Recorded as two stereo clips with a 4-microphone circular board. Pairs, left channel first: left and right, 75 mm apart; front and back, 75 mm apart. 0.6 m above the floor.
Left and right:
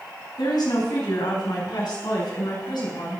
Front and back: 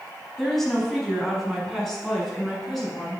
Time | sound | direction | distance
0.4 | a woman speaking | 85° left | 5 m